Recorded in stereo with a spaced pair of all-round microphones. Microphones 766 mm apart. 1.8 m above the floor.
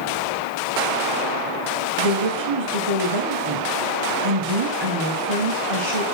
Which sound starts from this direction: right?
A woman speaking, at 2.0 s.